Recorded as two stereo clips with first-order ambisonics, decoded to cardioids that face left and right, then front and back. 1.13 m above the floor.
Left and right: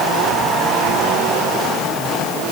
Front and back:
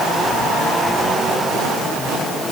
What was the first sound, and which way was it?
Only background noise.